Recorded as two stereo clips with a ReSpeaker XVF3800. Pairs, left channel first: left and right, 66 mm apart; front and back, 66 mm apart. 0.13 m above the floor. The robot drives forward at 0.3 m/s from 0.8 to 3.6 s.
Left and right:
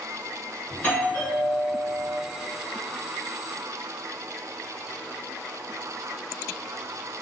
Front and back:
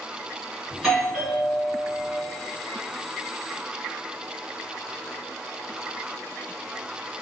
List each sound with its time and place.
0.7 s a doorbell: 95° left, 1.7 m; by 2.1 s 120° left, 1.8 m